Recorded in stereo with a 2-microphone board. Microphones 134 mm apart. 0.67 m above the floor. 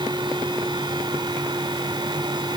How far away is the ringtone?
No ringtone in this recording.